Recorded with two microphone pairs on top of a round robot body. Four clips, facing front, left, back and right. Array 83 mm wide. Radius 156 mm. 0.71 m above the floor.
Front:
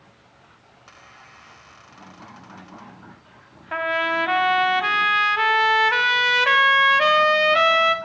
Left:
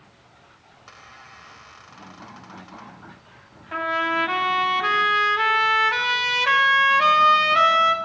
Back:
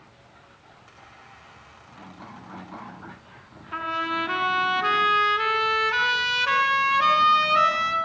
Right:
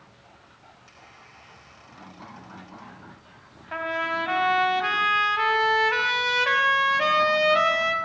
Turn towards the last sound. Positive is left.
turn(degrees=-5)